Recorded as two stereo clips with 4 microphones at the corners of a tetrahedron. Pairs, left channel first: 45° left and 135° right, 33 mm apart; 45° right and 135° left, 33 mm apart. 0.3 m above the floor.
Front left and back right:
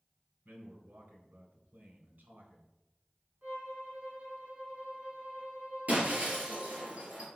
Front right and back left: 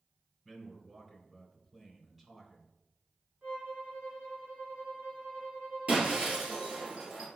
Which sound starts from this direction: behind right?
A man speaking, at 0.5 s.